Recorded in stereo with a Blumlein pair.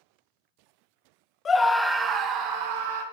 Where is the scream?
20° left, 0.6 m; by 3.0 s 50° right, 1.2 m.